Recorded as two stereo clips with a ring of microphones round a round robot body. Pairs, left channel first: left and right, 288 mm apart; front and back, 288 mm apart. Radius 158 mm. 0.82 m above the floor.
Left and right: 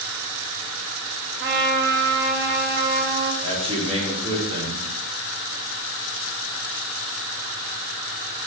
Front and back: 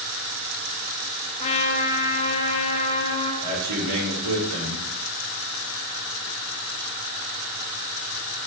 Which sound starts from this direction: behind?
A man speaking, at 3.4 s.